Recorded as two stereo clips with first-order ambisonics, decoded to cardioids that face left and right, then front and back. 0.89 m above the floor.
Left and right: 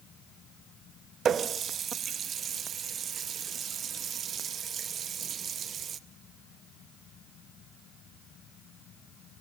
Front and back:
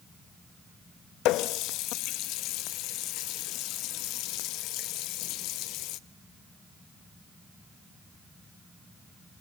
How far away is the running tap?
About 0.6 m.